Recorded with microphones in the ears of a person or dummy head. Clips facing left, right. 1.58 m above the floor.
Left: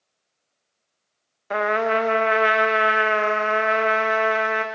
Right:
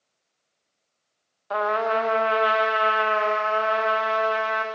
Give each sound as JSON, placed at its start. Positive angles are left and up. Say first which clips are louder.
{"t": 1.5, "sound": "a trumpet", "louder": "left 2 dB", "side_deg": 30, "distance_m": 0.7}